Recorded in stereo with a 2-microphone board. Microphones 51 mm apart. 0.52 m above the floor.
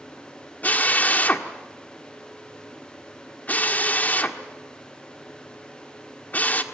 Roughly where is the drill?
Left.